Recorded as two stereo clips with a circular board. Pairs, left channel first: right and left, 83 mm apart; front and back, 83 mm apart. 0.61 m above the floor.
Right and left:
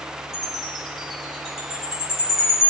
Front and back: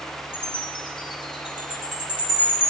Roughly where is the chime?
Ahead.